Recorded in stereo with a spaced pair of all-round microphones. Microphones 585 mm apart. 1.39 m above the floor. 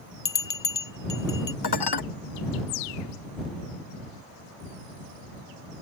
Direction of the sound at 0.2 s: 35° left (ahead or behind).